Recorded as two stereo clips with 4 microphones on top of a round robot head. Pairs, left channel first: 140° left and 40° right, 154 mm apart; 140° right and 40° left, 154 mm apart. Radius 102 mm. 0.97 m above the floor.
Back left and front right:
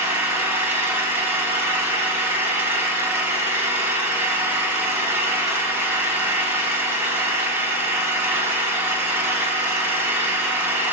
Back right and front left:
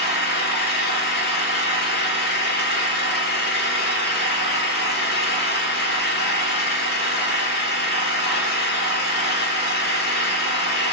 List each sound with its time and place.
0.0 s an engine running: 115° right, 0.9 m